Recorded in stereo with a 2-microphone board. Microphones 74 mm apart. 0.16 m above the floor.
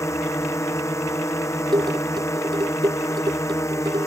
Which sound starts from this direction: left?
A drone, at 0.0 s.